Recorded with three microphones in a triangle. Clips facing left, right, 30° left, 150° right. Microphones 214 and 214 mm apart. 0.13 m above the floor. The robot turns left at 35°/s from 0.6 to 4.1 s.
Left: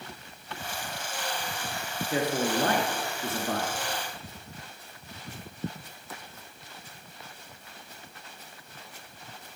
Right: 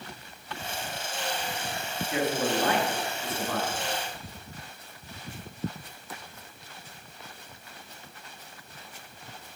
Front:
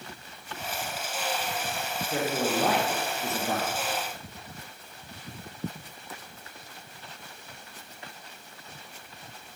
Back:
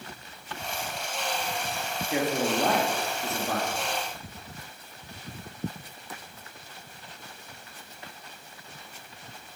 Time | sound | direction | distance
2.1 | a man speaking | 140° left | 1.8 m